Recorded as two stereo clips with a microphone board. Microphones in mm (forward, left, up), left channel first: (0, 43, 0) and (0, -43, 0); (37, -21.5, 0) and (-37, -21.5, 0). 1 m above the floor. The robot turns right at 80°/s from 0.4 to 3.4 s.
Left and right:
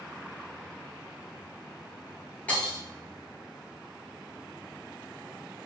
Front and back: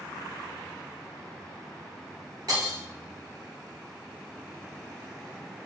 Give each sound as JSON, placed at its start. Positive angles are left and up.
{"t": 2.5, "sound": "breaking glass", "azimuth_deg": 160, "distance_m": 1.8}